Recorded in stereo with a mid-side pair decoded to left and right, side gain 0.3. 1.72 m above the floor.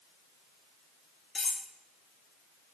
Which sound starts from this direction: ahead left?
Cutlery clinking, at 1.4 s.